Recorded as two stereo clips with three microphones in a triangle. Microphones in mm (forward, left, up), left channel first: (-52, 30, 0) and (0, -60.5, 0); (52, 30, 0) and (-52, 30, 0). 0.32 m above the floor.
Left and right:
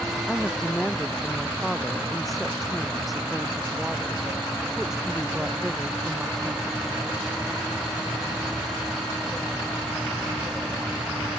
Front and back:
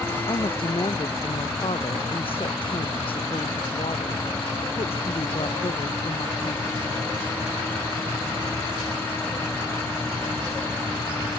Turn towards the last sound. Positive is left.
turn(degrees=20)